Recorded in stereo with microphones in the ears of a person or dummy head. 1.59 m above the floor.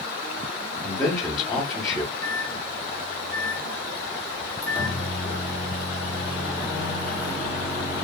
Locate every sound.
0.8 s a man speaking: 20° left (ahead or behind), 1.0 m
2.2 s a microwave: 5° right (ahead or behind), 1.0 m